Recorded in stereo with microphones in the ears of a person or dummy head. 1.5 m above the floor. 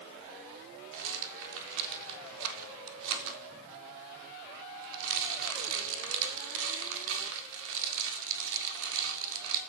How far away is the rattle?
About 4 m.